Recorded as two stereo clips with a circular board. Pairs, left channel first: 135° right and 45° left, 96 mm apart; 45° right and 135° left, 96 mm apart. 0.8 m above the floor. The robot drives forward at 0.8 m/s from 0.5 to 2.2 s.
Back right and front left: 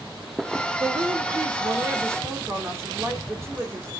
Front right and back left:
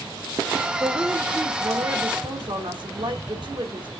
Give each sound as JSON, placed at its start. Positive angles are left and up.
{"t": 0.8, "sound": "a woman speaking", "azimuth_deg": 70, "distance_m": 1.8}